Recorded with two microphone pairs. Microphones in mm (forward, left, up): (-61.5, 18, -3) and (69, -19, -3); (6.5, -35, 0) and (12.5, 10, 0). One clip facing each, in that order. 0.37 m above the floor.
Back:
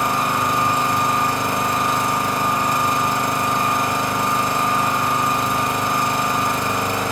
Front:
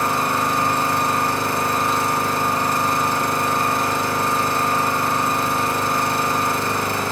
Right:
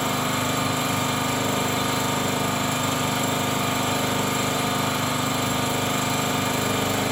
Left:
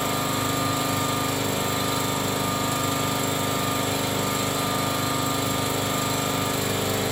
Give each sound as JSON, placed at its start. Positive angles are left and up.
{"t": 0.0, "sound": "an engine running", "azimuth_deg": -125, "distance_m": 2.0}